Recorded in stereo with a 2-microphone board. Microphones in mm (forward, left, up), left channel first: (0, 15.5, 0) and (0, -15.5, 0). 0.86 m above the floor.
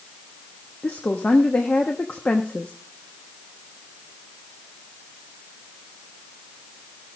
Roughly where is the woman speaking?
Left.